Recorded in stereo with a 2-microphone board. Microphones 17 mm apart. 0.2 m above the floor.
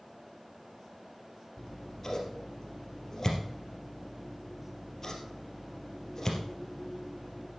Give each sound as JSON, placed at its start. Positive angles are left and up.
{"t": 1.6, "sound": "scissors", "side_deg": 35, "distance_m": 3.0}